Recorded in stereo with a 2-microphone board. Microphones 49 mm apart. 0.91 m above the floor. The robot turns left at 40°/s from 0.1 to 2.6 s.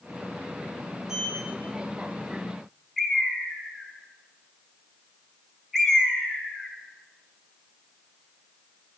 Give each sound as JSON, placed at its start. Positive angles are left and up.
{"t": 1.1, "sound": "a sliding door", "side_deg": -10, "distance_m": 1.9}
{"t": 3.0, "sound": "a bird", "side_deg": -5, "distance_m": 1.0}